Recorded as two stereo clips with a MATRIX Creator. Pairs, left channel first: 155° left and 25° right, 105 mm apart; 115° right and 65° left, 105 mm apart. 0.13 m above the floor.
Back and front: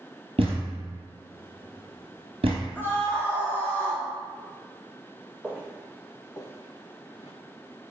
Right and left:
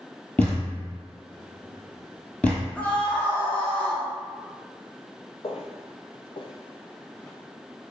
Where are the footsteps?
100° right, 0.9 m; by 7.3 s 160° left, 0.8 m.